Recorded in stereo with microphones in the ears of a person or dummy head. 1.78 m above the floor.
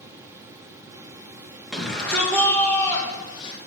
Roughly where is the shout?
Centre.